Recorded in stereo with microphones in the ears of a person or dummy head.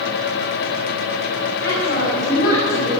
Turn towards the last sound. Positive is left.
turn(degrees=65)  # may be behind; listen again after turning